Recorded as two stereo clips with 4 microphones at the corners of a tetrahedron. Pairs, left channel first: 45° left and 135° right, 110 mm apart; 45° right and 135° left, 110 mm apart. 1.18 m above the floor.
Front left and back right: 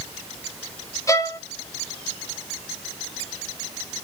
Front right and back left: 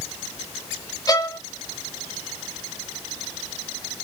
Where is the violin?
Straight ahead, 0.6 m.